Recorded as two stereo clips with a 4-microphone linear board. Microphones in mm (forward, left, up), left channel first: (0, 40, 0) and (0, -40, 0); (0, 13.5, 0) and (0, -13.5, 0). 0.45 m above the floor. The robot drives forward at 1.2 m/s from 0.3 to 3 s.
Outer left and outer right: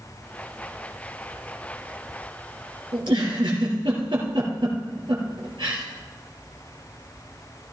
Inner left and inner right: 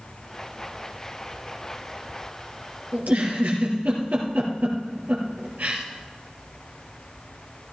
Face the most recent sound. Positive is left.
turn(degrees=-75)  # may be behind; listen again after turning